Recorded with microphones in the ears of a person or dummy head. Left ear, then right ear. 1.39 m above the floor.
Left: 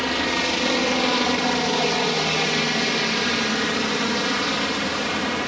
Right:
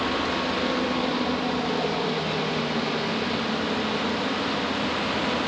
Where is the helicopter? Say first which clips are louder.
Left 3 dB; 60° left (ahead or behind).